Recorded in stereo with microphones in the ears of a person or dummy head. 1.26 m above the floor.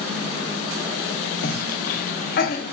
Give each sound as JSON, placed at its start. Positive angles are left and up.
{"t": 1.4, "sound": "a cough", "side_deg": 35, "distance_m": 0.5}